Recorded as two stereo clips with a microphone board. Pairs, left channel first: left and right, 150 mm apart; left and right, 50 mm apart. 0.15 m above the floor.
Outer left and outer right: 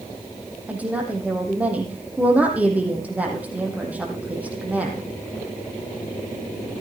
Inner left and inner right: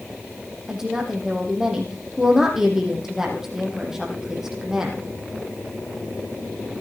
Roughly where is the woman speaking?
Centre.